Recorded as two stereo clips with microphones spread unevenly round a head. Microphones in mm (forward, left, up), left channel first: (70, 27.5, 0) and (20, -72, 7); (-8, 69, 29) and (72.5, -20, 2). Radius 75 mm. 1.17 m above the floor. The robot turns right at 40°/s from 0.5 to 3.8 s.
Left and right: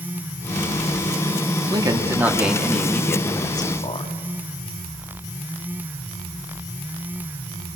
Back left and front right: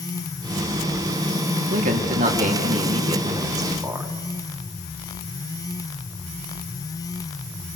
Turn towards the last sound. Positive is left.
turn(degrees=20)